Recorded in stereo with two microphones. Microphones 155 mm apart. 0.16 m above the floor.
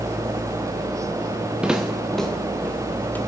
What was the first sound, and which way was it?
Footsteps, 5° right (ahead or behind).